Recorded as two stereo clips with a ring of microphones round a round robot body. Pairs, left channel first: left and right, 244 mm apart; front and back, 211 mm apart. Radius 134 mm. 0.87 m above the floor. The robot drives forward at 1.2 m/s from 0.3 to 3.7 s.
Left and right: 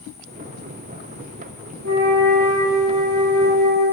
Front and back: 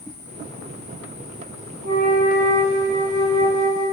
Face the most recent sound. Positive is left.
turn(degrees=-160)